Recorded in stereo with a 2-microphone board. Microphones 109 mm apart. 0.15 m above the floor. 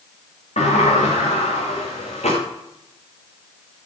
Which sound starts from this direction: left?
A sliding door, at 0.6 s.